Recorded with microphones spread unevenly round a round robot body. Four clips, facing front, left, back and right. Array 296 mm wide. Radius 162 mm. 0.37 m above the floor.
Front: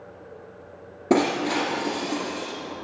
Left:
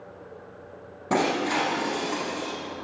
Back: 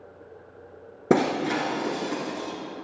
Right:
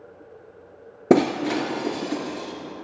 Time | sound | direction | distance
1.1 | breaking glass | 105° right | 1.4 m